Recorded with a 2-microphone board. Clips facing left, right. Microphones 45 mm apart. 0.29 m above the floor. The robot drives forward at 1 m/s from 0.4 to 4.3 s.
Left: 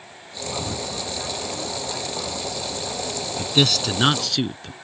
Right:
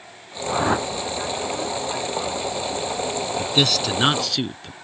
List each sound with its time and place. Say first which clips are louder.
0.5 s a whoosh: right 9 dB; 85° right; by 0.9 s 80° right
3.4 s a man speaking: left 2 dB; centre (ahead or behind)